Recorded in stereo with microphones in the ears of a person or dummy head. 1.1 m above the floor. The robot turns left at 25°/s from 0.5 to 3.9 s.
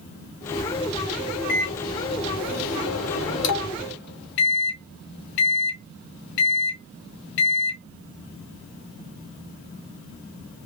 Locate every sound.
1.5 s a microwave: 60° left (ahead or behind), 1.1 m